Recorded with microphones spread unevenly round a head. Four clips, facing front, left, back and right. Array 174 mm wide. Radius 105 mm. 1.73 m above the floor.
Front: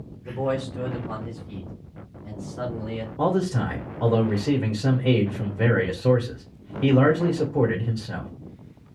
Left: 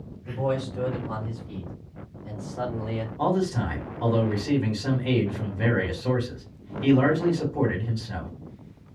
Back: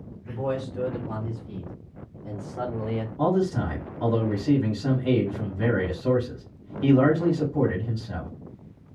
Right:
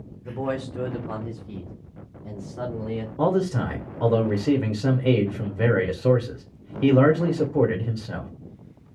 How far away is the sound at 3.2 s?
About 1.4 m.